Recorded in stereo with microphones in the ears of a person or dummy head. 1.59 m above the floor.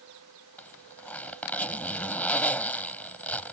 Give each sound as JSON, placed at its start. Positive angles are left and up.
{"t": 0.6, "sound": "a zipper", "side_deg": 5}